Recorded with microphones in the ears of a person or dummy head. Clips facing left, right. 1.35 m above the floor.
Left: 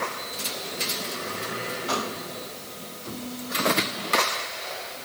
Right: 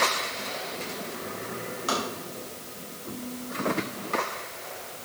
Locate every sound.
1.9 s tapping: 65° right (ahead or behind), 5.5 m